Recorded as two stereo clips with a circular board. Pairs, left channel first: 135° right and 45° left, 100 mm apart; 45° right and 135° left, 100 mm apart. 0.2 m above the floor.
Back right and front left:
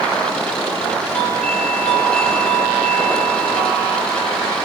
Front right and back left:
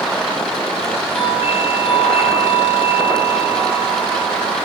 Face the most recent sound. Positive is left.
turn(degrees=-55)